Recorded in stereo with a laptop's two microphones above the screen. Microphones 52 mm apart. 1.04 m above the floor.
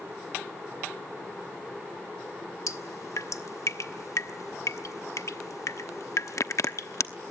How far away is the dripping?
About 0.9 m.